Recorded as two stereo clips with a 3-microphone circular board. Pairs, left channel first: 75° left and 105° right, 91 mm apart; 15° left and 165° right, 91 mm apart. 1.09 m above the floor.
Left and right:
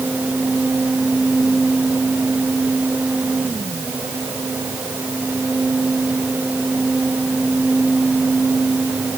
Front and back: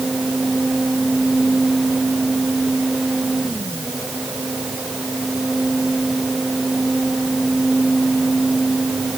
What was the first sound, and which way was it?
Only background noise.